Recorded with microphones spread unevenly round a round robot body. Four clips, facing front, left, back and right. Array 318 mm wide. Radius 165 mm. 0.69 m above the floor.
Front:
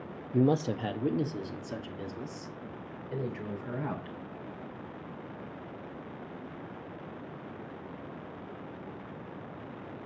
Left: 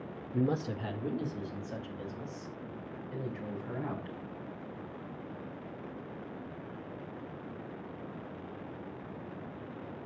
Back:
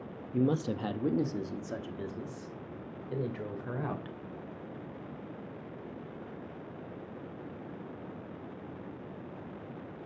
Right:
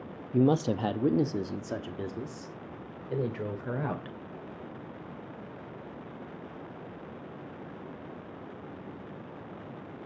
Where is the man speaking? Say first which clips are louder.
Right 7 dB, front 3 dB; 60° right, 0.6 m; by 4.2 s 100° right, 3 m.